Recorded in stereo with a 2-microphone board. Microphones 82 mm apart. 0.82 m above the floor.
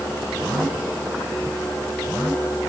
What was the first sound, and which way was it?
Only background noise.